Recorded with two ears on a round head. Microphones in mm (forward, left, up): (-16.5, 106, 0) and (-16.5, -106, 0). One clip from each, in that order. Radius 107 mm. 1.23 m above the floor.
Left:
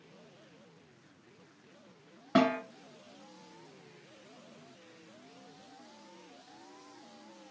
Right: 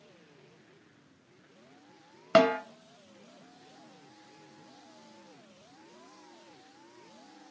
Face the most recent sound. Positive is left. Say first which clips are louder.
# right 5 dB
turn(degrees=-75)  # may be behind; listen again after turning